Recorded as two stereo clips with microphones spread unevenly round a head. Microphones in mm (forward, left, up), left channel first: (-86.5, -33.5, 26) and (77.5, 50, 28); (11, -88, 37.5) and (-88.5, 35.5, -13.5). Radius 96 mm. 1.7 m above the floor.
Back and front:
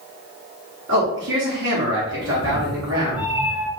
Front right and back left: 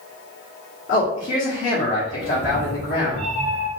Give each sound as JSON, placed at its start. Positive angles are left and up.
{"t": 0.9, "sound": "a man speaking", "azimuth_deg": -5, "distance_m": 1.0}
{"t": 2.2, "sound": "a cat meowing", "azimuth_deg": 100, "distance_m": 0.8}